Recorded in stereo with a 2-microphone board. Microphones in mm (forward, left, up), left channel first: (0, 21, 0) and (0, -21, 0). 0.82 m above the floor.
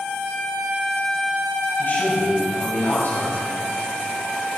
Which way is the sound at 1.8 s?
60° left (ahead or behind).